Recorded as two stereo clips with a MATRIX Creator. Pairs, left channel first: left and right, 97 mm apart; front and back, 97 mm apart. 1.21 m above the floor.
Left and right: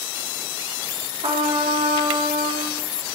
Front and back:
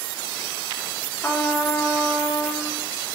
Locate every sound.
1.2 s a trumpet: 75° right, 1.0 m